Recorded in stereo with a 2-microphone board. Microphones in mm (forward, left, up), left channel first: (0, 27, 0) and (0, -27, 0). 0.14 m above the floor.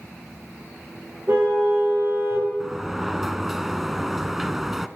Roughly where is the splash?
I don't hear a splash.